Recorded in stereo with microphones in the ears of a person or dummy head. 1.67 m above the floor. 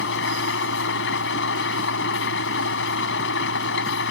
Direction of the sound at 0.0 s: 65° left (ahead or behind).